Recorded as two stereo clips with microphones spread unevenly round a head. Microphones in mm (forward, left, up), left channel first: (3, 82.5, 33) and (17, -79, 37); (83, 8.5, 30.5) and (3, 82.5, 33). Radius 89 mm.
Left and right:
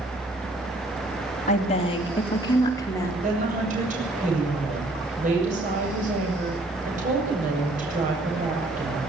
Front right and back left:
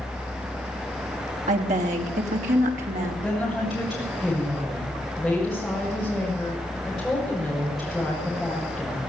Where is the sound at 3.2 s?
135° right, 7.5 m.